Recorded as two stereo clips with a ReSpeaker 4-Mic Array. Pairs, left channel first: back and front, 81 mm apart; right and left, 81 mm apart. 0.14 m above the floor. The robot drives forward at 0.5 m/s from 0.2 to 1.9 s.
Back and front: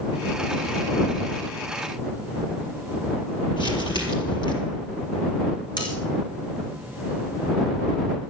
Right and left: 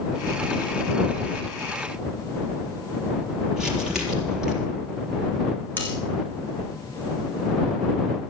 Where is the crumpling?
175° left, 4 m.